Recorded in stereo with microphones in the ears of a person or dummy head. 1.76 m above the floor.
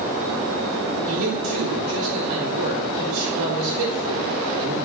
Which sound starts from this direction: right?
A man speaking, at 1.1 s.